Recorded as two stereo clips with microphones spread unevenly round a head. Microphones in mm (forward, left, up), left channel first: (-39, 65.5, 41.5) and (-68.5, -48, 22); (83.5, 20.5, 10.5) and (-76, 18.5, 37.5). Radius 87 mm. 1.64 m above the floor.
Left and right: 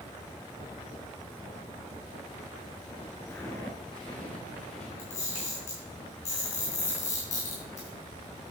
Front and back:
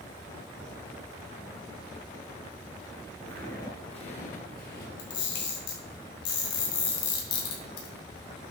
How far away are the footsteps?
About 1.7 m.